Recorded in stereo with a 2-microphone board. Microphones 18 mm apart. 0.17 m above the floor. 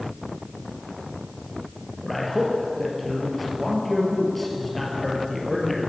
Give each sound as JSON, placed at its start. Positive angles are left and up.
{"t": 2.0, "sound": "a man speaking", "side_deg": 10, "distance_m": 3.5}